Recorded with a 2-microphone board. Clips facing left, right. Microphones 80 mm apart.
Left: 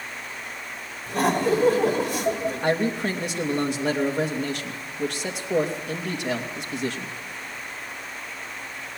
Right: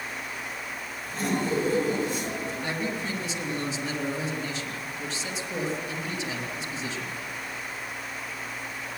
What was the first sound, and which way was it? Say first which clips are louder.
Laughter: left 6 dB; 80° left.